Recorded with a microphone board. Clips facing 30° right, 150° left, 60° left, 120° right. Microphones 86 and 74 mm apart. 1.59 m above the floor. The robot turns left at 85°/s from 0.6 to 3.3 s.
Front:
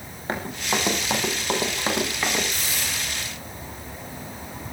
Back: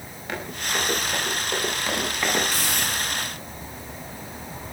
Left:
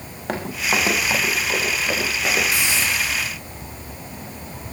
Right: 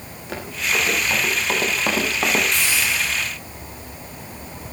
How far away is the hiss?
About 10 m.